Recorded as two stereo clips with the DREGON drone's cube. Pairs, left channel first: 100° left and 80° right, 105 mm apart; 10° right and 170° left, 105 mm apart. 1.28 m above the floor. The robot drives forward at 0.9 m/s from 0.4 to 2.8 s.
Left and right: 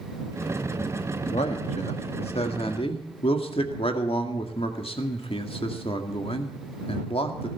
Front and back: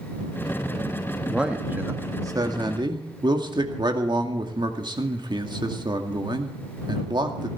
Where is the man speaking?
85° left, 1.7 m; by 7.5 s 125° left, 2 m.